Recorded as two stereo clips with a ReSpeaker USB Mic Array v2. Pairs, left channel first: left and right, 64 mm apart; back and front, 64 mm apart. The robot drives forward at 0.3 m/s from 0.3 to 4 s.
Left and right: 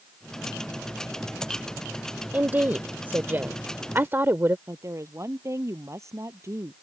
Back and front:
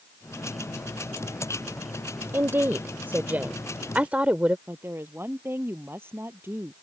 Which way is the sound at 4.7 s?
50° right.